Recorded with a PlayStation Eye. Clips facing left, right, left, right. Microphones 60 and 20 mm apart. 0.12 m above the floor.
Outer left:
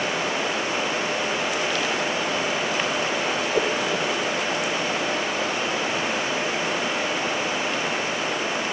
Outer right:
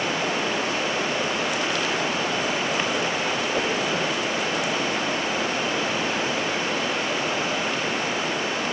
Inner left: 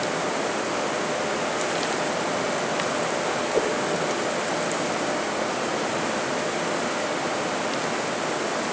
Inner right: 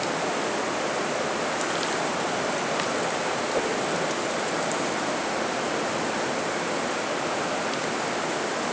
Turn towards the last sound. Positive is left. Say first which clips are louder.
# outer left 4 dB, inner left 4 dB
turn(degrees=65)  # may be behind; listen again after turning